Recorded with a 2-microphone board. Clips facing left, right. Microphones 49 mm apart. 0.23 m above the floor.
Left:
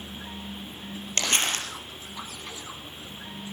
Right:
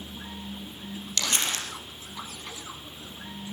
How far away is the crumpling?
About 3.5 m.